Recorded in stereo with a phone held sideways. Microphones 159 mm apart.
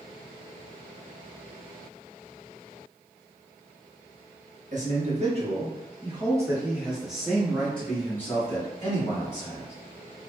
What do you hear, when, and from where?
4.7 s a man speaking: 50° right (ahead or behind), 1.3 m; by 9.7 s 25° left (ahead or behind), 2.5 m